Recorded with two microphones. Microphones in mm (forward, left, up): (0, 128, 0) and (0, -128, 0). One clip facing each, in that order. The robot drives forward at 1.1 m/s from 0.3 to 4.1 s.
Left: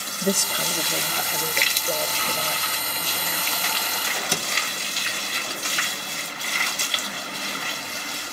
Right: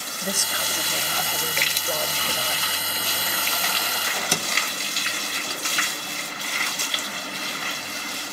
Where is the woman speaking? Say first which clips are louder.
Left 7 dB; 40° left (ahead or behind), 0.8 m; by 3.5 s 10° left (ahead or behind), 4 m.